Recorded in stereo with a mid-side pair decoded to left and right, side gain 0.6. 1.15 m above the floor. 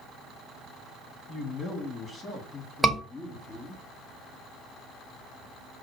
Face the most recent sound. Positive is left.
turn(degrees=0)